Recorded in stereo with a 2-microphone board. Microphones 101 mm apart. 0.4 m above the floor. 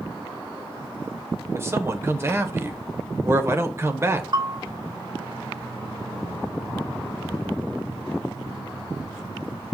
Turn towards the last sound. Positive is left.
turn(degrees=-45)  # may be behind; listen again after turning